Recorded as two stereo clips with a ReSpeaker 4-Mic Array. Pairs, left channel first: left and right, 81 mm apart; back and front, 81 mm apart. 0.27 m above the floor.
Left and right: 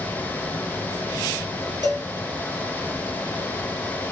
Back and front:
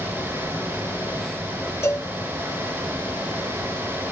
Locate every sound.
1.8 s a cowbell: 130° right, 1.8 m